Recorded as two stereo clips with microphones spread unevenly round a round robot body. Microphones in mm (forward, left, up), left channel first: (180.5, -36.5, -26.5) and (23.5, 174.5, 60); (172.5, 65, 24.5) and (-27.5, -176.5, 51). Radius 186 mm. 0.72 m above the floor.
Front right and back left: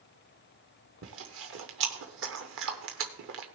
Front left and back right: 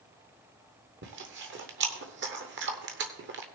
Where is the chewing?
170° left, 0.6 m.